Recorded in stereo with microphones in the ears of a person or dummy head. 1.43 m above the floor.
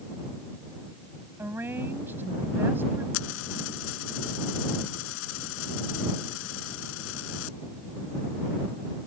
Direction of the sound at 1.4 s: 15° right (ahead or behind).